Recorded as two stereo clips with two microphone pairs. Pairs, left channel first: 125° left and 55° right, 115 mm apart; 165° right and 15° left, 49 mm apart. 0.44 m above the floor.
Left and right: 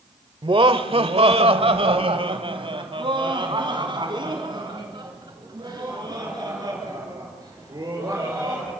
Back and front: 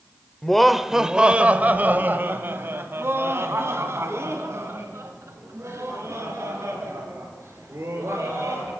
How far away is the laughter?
About 1.2 m.